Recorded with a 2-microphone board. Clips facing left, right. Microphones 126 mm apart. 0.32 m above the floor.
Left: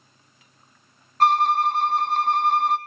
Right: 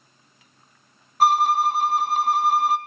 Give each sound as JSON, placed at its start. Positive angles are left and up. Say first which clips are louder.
{"t": 1.2, "sound": "a violin", "louder": "even", "side_deg": -5, "distance_m": 0.5}